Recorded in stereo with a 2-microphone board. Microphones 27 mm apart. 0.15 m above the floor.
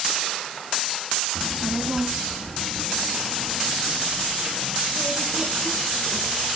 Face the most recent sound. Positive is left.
turn(degrees=-30)  # may be behind; listen again after turning